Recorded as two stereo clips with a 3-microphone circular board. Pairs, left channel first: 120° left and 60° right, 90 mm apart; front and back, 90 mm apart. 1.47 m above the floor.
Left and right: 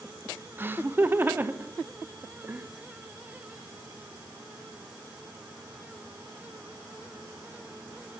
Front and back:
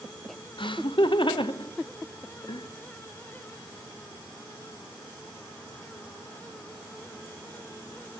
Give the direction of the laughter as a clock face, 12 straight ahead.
12 o'clock.